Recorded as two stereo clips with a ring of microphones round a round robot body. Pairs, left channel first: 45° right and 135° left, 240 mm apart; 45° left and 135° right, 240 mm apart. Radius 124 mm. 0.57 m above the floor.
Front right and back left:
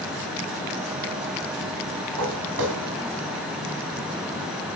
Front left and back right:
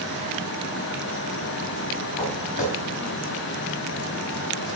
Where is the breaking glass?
I don't hear breaking glass.